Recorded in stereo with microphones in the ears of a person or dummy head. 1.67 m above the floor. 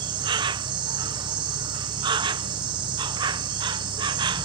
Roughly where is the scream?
No scream in this recording.